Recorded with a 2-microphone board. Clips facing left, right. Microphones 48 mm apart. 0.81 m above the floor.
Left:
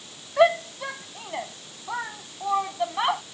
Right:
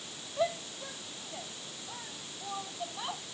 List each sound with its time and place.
0.4 s a shout: 80° left